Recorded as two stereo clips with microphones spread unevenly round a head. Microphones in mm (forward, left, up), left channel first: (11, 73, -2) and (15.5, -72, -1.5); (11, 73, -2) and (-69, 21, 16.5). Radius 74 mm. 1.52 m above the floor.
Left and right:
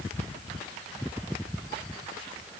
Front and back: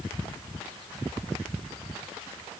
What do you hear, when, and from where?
Only background noise.